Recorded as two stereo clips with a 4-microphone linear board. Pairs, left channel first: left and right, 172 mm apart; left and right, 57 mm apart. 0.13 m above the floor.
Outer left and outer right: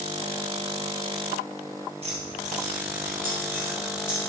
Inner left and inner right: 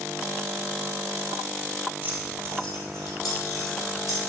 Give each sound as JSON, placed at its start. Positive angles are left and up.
{"t": 2.0, "sound": "keys jangling", "side_deg": -40, "distance_m": 2.0}